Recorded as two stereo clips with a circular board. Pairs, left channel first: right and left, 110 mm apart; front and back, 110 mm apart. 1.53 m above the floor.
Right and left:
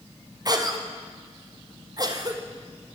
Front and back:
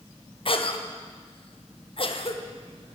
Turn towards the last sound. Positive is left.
turn(degrees=35)